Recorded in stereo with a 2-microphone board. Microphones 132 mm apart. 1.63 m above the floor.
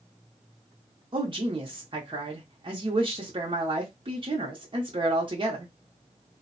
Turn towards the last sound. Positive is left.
turn(degrees=-40)  # may be behind; listen again after turning